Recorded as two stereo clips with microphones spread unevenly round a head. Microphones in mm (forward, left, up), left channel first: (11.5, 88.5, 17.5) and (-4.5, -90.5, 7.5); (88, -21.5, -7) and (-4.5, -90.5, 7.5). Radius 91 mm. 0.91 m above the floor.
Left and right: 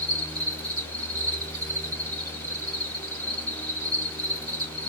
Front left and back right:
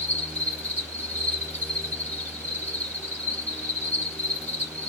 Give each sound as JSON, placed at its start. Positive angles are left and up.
{"t": 0.0, "sound": "an insect", "azimuth_deg": -30, "distance_m": 2.5}